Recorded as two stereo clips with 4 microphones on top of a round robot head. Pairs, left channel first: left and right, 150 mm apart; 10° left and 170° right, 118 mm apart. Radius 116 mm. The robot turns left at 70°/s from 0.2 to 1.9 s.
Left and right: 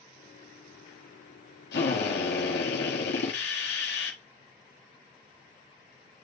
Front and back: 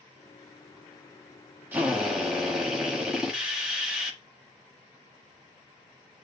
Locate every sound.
1.7 s a drill: 120° left, 1.7 m; by 4.2 s 110° left, 1.7 m